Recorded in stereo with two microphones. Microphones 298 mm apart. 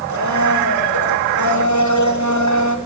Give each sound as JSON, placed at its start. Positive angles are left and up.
{"t": 0.1, "sound": "a blender", "side_deg": 70, "distance_m": 5.0}